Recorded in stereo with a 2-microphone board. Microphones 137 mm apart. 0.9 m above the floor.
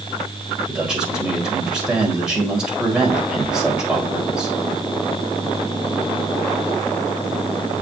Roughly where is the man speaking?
Centre.